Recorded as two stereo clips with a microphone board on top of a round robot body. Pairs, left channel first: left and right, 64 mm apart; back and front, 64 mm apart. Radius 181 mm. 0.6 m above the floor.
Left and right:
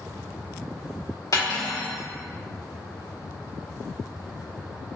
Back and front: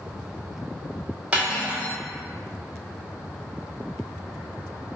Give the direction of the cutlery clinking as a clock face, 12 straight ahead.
10 o'clock.